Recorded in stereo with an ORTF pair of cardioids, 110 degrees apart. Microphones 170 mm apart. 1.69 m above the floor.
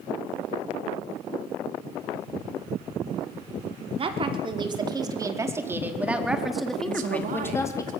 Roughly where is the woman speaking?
Ahead right.